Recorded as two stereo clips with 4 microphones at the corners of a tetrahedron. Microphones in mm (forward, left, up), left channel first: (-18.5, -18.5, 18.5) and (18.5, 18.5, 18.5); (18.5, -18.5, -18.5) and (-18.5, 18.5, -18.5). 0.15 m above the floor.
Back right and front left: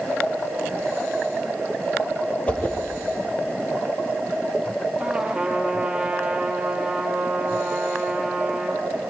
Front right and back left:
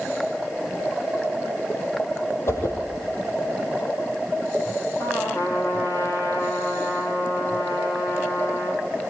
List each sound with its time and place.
2.5 s a whoosh: 75° right, 3.5 m
5.0 s a trumpet: 30° right, 4 m